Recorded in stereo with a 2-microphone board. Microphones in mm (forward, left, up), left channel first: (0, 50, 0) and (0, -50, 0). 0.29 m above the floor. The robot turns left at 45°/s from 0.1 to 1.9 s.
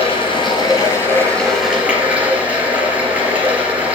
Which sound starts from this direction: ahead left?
Running water, at 0.0 s.